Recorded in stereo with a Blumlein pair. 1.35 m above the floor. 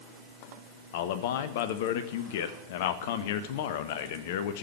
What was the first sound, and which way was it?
A man speaking, 50° left.